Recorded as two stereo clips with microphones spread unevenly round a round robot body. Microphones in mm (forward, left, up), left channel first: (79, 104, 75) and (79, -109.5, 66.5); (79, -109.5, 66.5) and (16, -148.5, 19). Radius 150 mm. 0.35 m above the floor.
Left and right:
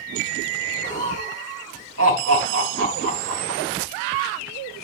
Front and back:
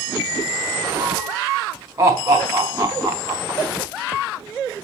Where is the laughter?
120° right, 4.5 m.